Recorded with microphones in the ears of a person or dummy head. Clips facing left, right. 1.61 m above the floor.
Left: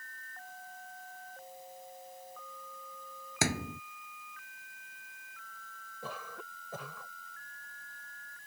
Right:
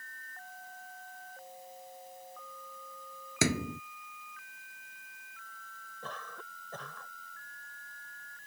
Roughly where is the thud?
Right.